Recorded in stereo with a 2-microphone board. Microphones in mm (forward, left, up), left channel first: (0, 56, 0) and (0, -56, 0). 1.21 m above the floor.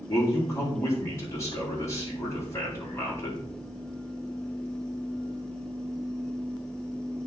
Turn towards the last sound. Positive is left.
turn(degrees=25)  # may be behind; listen again after turning